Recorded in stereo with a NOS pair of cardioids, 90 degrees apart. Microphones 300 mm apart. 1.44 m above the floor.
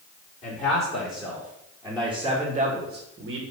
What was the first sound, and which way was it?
A man speaking, 25° left.